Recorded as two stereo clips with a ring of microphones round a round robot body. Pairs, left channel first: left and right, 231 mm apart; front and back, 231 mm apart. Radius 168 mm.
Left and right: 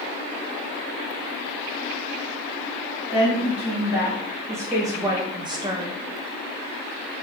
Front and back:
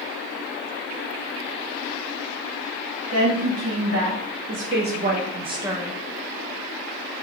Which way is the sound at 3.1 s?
175° right.